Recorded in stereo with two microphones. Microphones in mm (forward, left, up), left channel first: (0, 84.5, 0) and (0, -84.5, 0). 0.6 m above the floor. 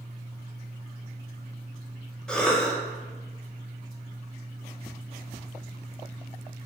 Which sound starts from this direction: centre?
A cough, at 2.3 s.